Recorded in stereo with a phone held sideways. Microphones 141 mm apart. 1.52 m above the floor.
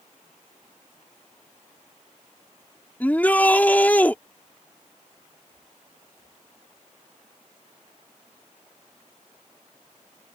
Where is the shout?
10° left (ahead or behind).